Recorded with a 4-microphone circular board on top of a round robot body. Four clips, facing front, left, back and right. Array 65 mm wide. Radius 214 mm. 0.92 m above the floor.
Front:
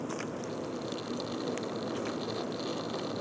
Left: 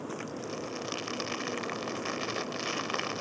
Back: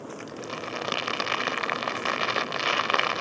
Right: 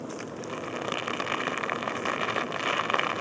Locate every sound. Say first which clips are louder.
0.3 s crumpling: right 3 dB, back 2 dB; 150° right